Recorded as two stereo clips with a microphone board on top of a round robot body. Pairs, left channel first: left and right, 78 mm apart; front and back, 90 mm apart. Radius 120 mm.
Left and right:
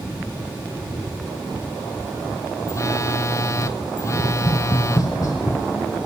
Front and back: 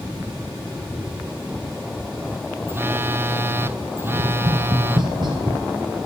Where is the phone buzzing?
125° left, 1.0 m.